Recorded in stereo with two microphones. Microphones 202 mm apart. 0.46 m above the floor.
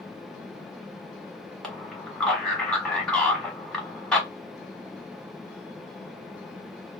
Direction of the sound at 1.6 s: 5° left (ahead or behind).